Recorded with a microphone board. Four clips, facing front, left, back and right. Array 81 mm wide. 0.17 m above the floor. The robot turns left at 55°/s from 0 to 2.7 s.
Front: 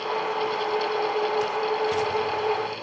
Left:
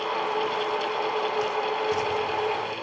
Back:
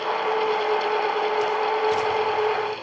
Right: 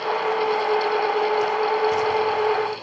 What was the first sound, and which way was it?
Only background noise.